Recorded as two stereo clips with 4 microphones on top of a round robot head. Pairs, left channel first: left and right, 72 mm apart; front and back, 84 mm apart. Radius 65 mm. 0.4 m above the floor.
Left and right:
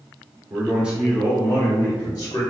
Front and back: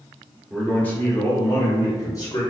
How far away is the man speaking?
About 0.9 m.